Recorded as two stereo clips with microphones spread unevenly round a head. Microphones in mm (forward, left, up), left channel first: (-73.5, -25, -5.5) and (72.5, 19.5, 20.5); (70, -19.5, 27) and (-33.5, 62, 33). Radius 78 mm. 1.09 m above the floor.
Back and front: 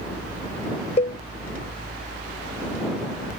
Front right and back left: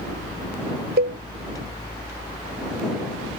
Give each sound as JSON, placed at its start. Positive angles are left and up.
{"t": 1.0, "sound": "a cowbell", "azimuth_deg": 140}